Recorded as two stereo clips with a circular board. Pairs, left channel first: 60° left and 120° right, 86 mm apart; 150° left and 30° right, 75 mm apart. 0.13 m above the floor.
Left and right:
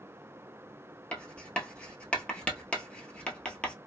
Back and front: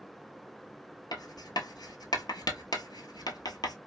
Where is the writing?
135° left, 0.7 m.